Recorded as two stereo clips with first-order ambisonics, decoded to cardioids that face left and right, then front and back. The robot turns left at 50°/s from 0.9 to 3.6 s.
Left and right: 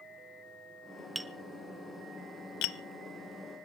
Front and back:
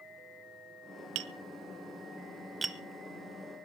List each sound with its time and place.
1.1 s tapping: 175° right, 0.6 m; by 2.8 s 100° left, 0.6 m